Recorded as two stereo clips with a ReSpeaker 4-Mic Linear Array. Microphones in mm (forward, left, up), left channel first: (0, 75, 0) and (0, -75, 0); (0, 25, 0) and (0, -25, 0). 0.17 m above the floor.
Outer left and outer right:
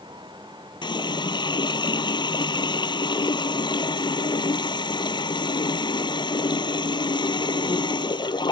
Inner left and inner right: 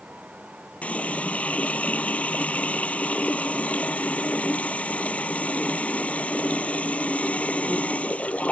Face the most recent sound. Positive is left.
turn(degrees=30)  # may be behind; listen again after turning